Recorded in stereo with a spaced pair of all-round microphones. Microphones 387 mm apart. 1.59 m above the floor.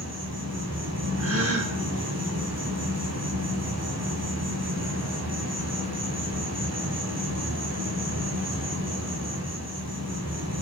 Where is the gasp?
35° right (ahead or behind), 0.8 m.